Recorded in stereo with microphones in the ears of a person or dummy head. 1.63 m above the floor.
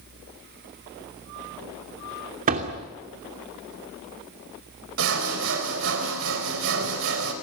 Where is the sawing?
70° right (ahead or behind), 4 m.